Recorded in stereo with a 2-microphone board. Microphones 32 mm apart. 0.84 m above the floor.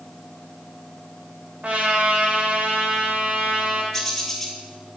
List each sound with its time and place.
1.6 s a trumpet: 45° right (ahead or behind), 2.5 m
3.9 s a bird: 15° left (ahead or behind), 1.9 m